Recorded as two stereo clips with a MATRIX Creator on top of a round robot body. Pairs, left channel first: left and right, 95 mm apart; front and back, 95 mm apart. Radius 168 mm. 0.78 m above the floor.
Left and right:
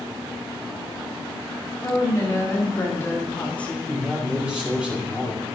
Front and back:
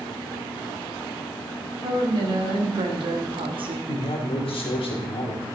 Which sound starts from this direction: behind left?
A woman speaking, at 1.8 s.